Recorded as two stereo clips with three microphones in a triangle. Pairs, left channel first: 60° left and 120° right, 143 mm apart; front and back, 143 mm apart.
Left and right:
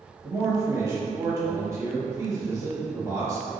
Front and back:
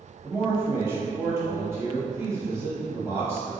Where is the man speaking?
140° right, 1.0 m.